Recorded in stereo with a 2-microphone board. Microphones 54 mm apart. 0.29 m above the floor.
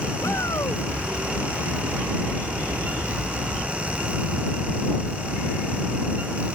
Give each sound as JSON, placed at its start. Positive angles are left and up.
{"t": 0.2, "sound": "a shout", "side_deg": 70}